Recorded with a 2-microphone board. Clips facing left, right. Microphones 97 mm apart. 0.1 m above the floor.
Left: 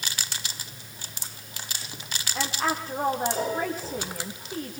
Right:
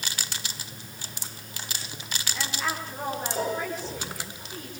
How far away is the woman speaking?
About 7 m.